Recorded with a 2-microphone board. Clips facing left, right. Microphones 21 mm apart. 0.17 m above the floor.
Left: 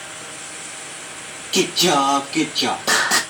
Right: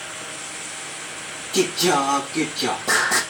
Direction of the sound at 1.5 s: 60° left (ahead or behind).